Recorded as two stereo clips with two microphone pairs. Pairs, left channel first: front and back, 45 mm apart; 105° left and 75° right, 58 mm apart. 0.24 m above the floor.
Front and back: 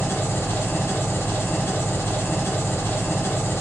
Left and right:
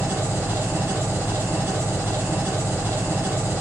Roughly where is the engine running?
Ahead.